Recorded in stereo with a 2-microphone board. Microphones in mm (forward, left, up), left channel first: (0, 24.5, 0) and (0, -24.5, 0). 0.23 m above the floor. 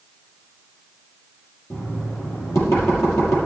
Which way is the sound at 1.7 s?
75° left (ahead or behind).